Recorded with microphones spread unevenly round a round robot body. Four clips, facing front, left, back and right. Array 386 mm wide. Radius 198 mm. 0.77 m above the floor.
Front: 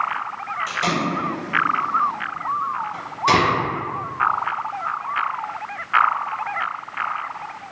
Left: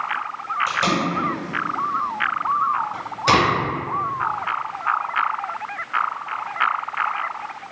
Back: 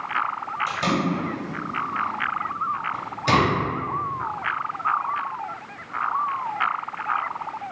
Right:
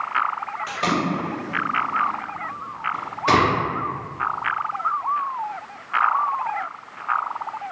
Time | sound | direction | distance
0.7 | tape being pulled | 155° left | 1.4 m